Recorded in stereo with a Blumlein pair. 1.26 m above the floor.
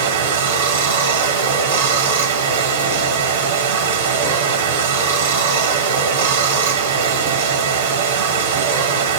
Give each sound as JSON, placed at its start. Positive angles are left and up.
{"t": 0.0, "sound": "running water", "azimuth_deg": -60, "distance_m": 1.5}